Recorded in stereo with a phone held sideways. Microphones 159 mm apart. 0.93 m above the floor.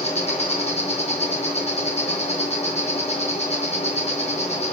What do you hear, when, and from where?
0.0 s an insect: 45° left (ahead or behind), 5 m